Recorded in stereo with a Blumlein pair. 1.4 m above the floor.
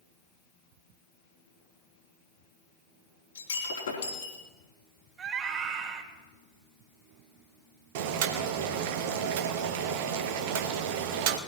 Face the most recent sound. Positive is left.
turn(degrees=-50)